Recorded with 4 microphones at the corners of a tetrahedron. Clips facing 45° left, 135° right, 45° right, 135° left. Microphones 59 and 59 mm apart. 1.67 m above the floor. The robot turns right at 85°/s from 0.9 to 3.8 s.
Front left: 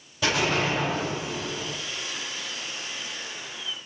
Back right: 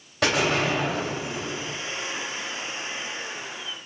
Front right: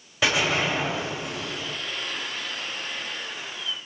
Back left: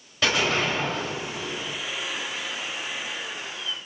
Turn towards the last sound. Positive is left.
turn(degrees=120)